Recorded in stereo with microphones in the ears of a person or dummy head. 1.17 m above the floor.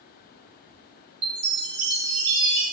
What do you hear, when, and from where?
1.2 s a chime: 30° right (ahead or behind), 1.2 m